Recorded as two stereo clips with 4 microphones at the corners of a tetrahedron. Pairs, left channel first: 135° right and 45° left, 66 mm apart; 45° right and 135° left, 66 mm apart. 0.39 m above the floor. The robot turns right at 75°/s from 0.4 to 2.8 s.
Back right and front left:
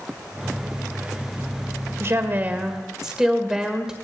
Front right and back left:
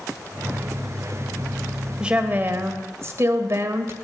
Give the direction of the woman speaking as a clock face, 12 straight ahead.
10 o'clock.